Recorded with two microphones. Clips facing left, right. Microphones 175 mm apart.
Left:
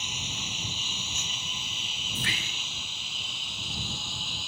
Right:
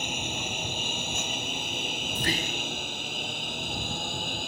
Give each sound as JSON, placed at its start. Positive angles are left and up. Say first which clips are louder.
{"t": 0.0, "sound": "a lawn mower", "louder": "right 7 dB", "side_deg": -55}
{"t": 2.1, "sound": "whispering", "louder": "right 7 dB", "side_deg": -40}